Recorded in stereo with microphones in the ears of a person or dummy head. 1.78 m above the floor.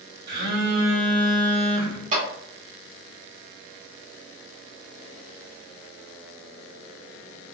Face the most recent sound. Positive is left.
turn(degrees=-40)  # may be behind; listen again after turning